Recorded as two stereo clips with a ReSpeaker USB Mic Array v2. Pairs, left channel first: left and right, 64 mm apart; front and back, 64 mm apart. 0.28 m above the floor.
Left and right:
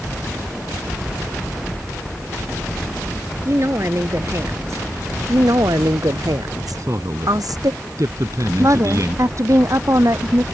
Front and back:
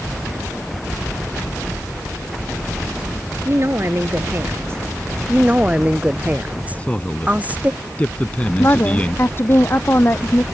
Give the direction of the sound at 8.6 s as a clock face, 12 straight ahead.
2 o'clock.